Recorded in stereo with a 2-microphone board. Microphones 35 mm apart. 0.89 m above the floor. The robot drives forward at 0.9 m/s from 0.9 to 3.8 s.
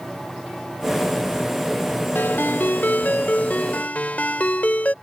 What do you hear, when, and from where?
2.1 s a ringtone: 75° left (ahead or behind); by 4.9 s 45° left (ahead or behind)